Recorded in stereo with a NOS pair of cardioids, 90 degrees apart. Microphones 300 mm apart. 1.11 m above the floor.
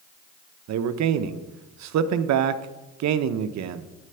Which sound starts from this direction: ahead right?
A man speaking, at 0.7 s.